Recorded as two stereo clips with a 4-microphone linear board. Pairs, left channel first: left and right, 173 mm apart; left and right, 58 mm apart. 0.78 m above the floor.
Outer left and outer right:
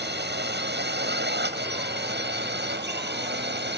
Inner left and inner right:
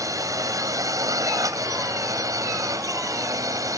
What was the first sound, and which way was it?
A drone, 70° right (ahead or behind).